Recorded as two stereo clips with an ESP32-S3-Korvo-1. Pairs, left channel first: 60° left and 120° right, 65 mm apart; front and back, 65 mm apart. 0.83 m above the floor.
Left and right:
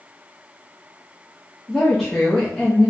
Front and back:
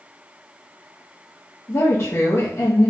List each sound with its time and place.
1.7 s a woman speaking: 25° right, 0.6 m